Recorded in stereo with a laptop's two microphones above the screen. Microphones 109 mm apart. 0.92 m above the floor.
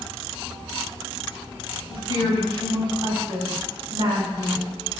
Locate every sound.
1.9 s a woman speaking: 50° right (ahead or behind), 3.5 m